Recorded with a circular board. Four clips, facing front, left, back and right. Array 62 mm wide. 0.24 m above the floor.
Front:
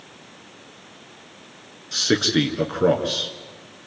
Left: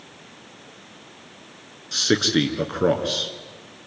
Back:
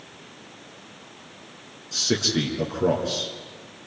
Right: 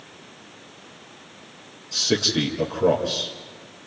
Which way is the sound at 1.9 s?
50° left.